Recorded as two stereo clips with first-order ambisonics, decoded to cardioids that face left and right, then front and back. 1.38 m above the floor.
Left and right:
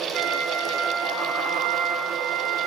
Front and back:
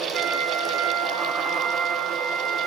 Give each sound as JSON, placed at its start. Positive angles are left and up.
{"t": 0.1, "sound": "a flute", "azimuth_deg": -135, "distance_m": 1.1}